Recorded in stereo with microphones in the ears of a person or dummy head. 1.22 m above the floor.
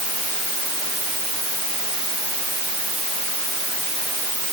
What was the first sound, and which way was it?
Only background noise.